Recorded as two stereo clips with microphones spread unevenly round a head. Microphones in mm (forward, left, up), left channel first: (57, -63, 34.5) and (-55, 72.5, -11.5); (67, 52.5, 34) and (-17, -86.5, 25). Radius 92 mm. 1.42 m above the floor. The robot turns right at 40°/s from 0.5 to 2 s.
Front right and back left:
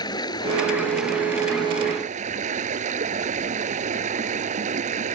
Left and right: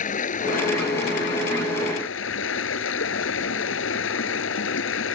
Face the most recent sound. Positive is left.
turn(degrees=75)